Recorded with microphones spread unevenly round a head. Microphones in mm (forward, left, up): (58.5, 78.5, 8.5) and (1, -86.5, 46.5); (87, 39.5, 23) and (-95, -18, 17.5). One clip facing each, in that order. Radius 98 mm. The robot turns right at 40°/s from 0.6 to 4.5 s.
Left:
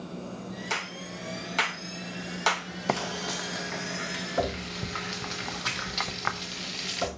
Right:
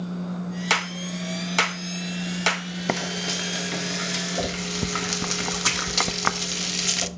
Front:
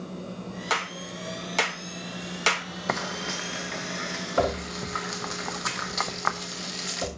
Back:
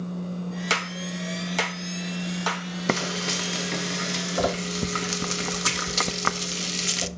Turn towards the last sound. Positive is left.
turn(degrees=-130)